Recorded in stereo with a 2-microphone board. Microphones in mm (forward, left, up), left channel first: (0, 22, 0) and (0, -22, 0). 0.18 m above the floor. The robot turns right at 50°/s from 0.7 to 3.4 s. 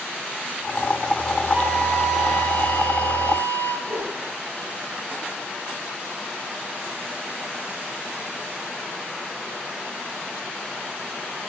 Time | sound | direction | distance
1.5 | a flute | 35° right | 2.5 m
3.8 | a whoosh | 75° right (ahead or behind) | 4.5 m